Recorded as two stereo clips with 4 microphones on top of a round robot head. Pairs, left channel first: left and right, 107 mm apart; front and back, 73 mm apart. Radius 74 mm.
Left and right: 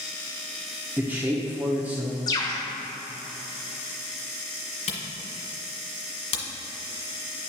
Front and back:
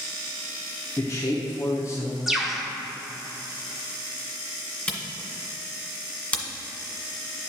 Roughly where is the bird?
Left.